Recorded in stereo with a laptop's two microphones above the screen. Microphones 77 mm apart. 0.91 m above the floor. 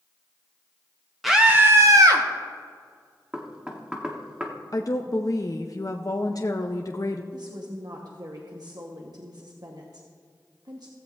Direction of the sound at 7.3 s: 60° right (ahead or behind).